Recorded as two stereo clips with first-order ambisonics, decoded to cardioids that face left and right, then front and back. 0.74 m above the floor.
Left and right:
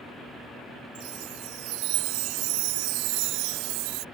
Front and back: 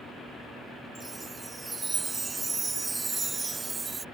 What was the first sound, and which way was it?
A chime, 105° right.